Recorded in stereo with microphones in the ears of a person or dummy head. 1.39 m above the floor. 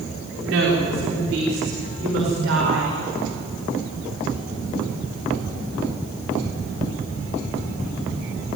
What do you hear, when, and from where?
0.4 s a woman speaking: 60° right (ahead or behind), 4.5 m; by 3.0 s 80° right, 6 m